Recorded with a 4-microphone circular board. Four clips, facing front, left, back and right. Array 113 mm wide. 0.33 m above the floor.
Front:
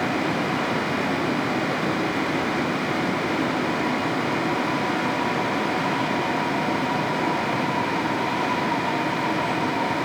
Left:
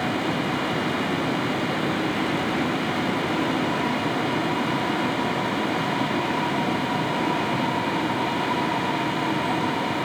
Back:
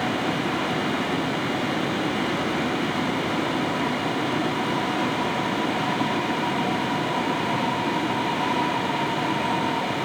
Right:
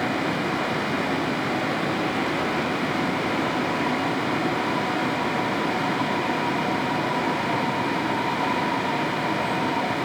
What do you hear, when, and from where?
Only background noise.